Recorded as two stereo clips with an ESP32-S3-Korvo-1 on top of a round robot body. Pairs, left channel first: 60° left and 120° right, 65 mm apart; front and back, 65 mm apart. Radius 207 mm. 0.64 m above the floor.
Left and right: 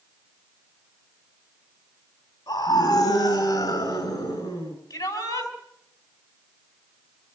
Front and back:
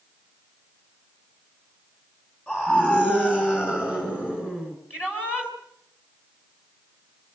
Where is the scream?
70° left, 7 m; by 4.8 s 60° left, 7.5 m.